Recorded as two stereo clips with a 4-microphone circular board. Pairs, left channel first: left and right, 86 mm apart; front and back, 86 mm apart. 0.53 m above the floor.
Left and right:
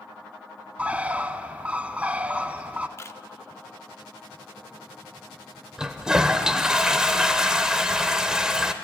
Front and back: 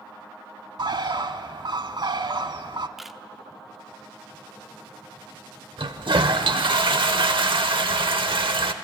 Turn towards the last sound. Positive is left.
turn(degrees=-170)